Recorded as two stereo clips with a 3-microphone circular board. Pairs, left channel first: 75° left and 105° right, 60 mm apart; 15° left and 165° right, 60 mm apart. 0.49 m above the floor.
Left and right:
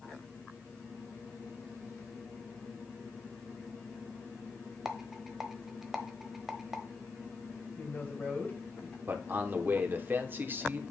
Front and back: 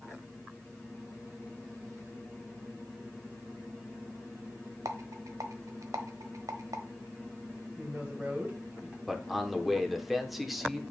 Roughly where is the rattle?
Behind.